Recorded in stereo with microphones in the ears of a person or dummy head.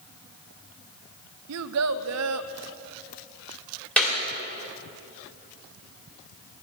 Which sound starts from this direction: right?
A child speaking, at 1.5 s.